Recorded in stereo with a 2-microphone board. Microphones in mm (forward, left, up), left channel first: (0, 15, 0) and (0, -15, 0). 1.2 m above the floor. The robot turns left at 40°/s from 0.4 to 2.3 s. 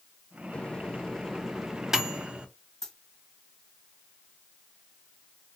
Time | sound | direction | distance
0.5 | a microwave | 35° left (ahead or behind) | 0.5 m
2.8 | a dropped coin | 10° left (ahead or behind) | 1.4 m